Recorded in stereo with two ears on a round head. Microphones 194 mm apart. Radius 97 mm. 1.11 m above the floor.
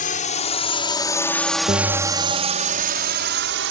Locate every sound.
0.0 s a drone: 35° left (ahead or behind); by 3.7 s 60° right (ahead or behind)
1.7 s a bell: 20° right (ahead or behind)